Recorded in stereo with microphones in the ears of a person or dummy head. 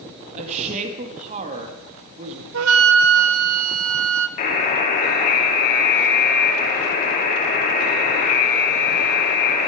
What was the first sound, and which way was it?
A woman speaking, 40° right (ahead or behind).